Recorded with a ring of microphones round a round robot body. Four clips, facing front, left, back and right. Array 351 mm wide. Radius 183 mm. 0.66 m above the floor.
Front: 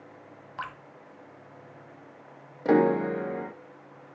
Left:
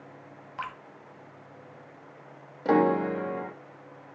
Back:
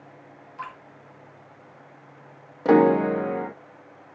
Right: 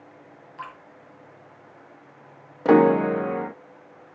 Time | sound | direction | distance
0.6 | dripping | 35° left | 1.7 m
2.6 | a piano | 115° right | 0.7 m